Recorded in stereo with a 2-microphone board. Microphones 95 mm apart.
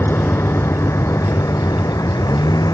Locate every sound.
0.0 s a vehicle: 20° left (ahead or behind); by 2.8 s 40° left (ahead or behind)